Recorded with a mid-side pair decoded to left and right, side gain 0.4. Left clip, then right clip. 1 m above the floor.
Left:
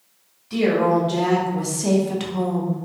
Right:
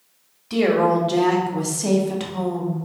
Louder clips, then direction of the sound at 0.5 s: Right 1 dB; 50° right.